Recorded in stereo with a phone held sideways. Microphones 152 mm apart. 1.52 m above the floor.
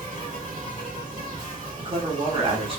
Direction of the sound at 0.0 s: 55° right (ahead or behind).